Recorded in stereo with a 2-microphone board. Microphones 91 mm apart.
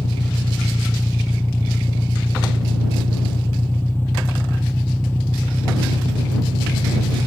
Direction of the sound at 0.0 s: 20° left (ahead or behind).